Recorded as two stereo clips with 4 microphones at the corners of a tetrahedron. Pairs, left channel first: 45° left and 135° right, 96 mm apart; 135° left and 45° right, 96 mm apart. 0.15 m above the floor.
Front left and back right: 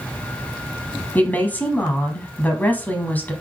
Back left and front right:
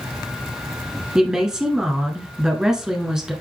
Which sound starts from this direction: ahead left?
A woman speaking, at 1.1 s.